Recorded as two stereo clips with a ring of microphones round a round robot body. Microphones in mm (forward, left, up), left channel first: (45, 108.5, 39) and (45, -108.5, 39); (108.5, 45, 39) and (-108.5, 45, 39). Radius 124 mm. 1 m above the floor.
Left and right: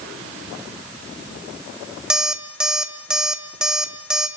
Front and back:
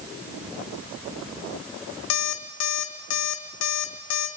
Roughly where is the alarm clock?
Ahead.